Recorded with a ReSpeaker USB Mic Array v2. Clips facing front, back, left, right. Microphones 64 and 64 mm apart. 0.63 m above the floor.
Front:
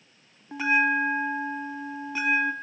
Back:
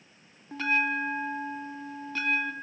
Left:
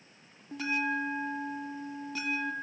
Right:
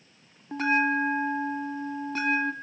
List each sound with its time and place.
0.5 s a bell: 75° right, 1.8 m